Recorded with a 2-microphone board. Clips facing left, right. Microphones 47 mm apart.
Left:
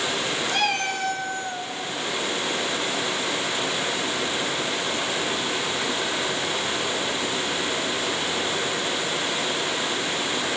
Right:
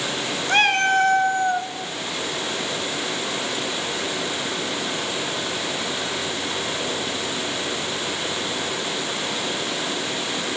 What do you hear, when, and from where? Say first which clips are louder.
0.5 s a cat meowing: right 9 dB; 45° right (ahead or behind), 1.5 m; by 1.7 s 40° right (ahead or behind), 1.0 m